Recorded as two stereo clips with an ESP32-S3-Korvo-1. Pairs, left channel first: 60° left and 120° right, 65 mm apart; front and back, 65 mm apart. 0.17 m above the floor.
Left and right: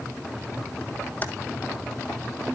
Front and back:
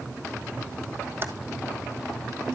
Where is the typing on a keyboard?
125° left, 1.0 m.